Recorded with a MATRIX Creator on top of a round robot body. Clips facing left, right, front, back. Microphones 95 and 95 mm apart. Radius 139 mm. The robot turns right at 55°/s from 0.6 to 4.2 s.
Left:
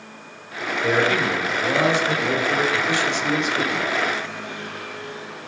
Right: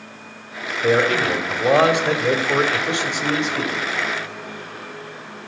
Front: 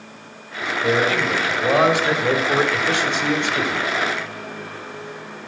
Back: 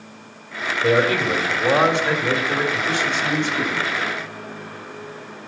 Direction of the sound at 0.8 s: 140° right.